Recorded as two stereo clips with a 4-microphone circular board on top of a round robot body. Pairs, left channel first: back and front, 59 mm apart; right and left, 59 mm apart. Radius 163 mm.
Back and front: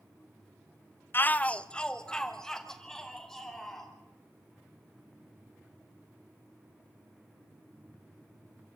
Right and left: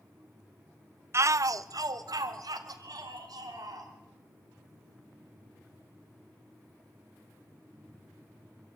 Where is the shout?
130° left, 0.5 m; by 3.9 s 95° left, 3.5 m.